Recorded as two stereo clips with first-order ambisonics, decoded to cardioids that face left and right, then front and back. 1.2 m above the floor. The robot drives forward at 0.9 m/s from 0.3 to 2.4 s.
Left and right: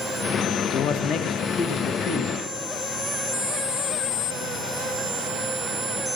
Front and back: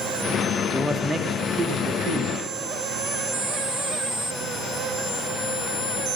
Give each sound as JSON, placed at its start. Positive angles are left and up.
{"t": 0.7, "sound": "a man speaking", "azimuth_deg": 85, "distance_m": 0.9}